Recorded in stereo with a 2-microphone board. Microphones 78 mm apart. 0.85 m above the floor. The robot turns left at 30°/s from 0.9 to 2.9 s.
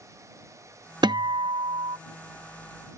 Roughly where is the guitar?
Right.